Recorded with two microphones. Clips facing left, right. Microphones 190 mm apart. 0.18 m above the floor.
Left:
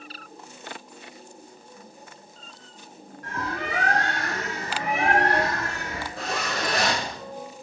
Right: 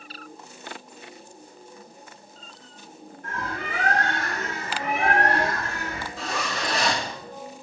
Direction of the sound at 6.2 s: 65° left (ahead or behind).